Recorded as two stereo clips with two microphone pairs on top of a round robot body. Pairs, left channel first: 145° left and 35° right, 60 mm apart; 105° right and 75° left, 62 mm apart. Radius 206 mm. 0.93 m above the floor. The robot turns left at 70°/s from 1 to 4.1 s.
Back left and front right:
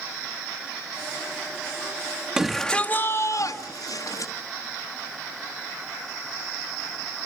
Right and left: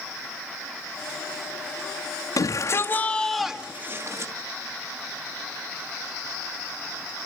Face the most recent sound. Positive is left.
turn(degrees=125)